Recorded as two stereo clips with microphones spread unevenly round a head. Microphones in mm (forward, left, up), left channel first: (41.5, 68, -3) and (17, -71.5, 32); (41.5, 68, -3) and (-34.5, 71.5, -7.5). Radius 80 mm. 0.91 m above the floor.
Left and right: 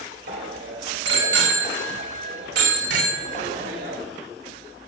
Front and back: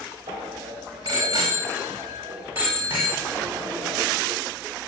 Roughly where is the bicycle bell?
Behind right.